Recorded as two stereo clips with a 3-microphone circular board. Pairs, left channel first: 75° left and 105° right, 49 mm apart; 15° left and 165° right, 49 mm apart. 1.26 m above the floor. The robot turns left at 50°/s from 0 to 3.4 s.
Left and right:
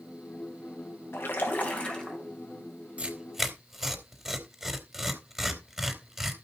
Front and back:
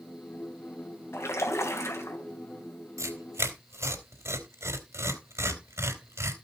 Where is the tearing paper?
170° right, 3 m; by 6.3 s 170° left, 3 m.